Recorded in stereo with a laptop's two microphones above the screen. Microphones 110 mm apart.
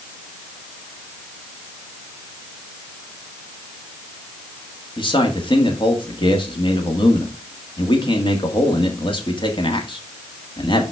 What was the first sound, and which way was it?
A man speaking, 50° left (ahead or behind).